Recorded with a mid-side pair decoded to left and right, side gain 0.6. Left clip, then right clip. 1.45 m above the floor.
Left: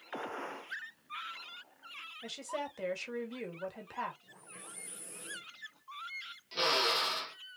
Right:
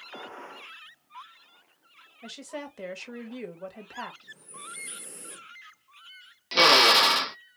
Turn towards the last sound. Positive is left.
turn(degrees=-60)